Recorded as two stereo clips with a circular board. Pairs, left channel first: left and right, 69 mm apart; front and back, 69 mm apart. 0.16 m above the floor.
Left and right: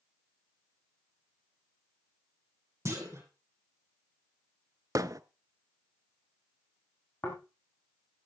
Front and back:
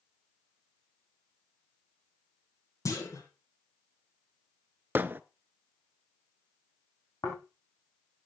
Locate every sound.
2.9 s a clunk: 40° right, 4 m
5.0 s hammering: 120° right, 0.6 m
7.2 s snoring: 35° left, 4.5 m